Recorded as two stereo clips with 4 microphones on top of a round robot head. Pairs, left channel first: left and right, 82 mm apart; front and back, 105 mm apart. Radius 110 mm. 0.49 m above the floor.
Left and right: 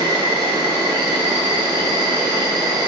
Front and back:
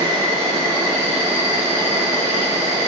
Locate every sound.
0.0 s an insect: 115° right, 0.9 m